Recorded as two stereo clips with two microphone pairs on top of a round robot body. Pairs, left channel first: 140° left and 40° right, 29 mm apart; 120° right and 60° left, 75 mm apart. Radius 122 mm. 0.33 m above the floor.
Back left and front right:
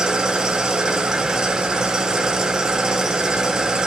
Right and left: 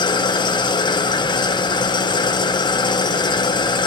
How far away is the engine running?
About 0.8 m.